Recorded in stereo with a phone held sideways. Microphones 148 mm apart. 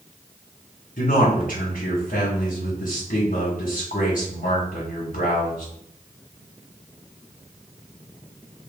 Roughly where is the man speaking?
Left.